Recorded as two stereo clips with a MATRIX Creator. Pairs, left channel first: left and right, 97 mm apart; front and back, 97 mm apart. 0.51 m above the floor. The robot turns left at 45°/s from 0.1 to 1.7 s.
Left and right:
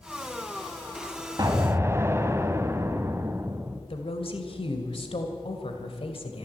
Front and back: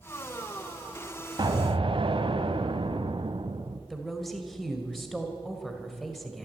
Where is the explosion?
140° right, 1.1 m; by 3.8 s 155° right, 1.1 m.